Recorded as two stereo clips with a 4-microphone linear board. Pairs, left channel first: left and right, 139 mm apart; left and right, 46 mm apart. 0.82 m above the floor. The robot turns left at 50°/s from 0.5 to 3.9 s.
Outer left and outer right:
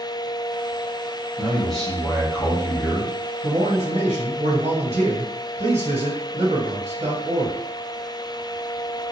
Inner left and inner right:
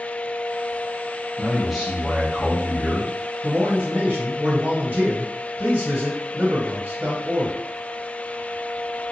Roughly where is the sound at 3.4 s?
Right.